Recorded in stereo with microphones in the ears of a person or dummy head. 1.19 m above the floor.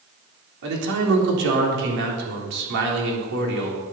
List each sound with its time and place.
0.6 s a man speaking: 70° right (ahead or behind), 3.5 m